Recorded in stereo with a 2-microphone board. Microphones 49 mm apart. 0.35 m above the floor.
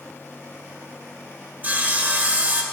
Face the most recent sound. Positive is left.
turn(degrees=-35)  # may be behind; listen again after turning